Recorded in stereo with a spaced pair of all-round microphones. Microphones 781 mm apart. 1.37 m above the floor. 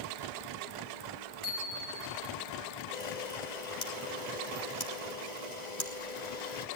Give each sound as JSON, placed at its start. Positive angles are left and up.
{"t": 1.4, "sound": "a bicycle bell", "side_deg": -65, "distance_m": 8.0}
{"t": 2.9, "sound": "a camera shutter", "side_deg": 60, "distance_m": 3.0}